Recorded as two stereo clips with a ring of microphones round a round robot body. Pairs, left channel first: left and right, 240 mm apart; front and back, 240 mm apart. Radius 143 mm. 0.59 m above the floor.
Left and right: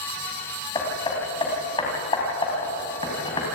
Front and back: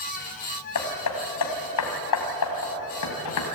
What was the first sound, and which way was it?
Hammering, 15° left.